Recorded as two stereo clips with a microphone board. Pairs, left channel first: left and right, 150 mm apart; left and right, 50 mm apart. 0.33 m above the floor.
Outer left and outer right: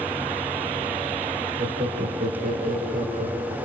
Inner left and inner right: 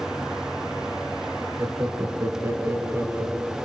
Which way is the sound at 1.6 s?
60° right (ahead or behind).